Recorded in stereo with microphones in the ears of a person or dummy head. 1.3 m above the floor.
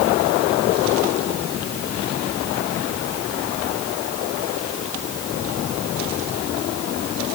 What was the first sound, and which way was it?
Only background noise.